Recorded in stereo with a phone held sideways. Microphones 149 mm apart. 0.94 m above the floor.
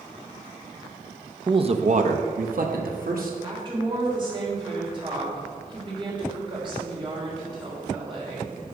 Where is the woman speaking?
35° right (ahead or behind), 3.5 m.